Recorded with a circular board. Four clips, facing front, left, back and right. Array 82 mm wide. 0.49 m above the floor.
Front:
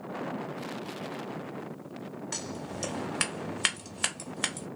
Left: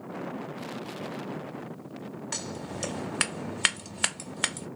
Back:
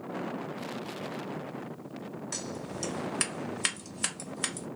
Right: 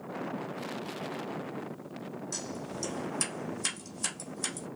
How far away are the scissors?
About 0.8 m.